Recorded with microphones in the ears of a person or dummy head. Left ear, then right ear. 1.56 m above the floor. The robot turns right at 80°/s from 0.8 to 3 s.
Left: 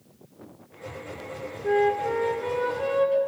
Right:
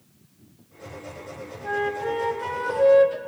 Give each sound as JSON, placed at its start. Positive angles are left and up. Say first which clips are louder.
{"t": 1.6, "sound": "a flute", "louder": "left 3 dB", "azimuth_deg": 180, "distance_m": 1.8}